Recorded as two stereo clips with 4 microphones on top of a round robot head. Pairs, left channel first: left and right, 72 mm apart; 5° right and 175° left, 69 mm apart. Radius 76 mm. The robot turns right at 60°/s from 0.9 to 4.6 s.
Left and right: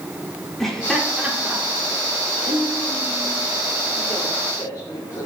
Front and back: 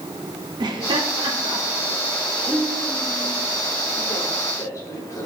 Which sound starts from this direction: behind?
Laughter, at 0.6 s.